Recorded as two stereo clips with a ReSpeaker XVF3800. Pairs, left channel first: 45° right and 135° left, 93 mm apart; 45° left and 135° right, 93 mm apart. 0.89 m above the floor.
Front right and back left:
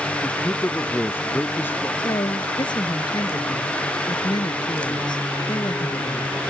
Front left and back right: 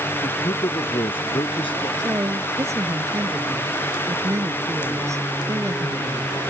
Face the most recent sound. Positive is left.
turn(degrees=-80)